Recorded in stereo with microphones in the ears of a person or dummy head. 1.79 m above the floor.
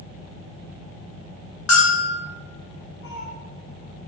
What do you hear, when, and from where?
1.7 s a bell: 80° left, 1.5 m
3.0 s a cat meowing: 50° left (ahead or behind), 1.9 m